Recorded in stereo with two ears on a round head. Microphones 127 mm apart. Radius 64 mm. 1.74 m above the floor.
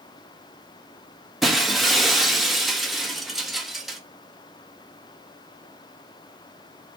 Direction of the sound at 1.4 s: Centre (ahead or behind).